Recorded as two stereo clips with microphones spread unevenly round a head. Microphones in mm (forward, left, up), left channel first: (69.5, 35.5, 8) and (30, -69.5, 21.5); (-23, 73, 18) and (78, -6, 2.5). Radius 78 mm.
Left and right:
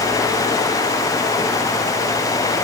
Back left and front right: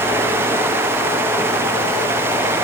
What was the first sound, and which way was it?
Only background noise.